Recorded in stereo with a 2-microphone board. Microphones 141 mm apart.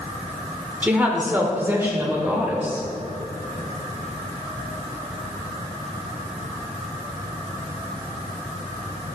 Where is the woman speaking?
10° right (ahead or behind), 1.1 m; by 2.9 s 15° right (ahead or behind), 1.8 m.